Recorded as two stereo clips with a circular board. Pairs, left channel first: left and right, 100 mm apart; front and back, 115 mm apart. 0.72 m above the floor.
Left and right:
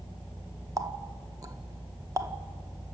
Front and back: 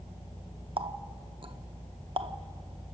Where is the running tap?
140° right, 0.6 m.